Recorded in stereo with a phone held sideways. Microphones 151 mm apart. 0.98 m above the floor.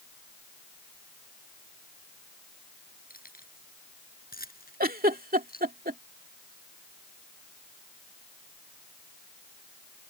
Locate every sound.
3.1 s keys jangling: 80° left; by 5.7 s 90° left
4.8 s a giggle: 85° right